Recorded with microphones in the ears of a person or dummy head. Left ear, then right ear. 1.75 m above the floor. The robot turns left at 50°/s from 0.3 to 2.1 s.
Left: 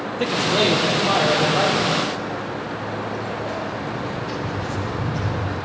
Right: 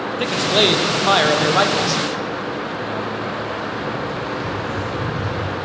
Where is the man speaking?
15° right, 0.9 m; by 2.0 s 100° right, 0.9 m.